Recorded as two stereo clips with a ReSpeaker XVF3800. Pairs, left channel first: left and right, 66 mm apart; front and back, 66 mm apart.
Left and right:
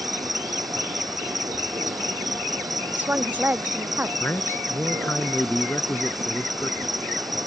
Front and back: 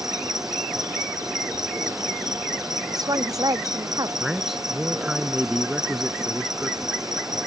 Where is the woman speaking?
155° right.